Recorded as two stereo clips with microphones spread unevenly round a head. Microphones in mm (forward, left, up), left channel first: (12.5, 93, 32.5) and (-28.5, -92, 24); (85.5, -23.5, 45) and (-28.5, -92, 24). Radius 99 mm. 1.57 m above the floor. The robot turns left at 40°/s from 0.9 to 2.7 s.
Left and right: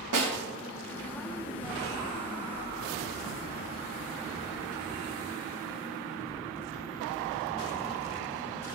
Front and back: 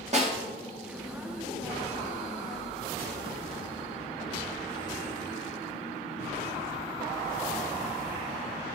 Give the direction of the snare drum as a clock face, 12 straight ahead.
4 o'clock.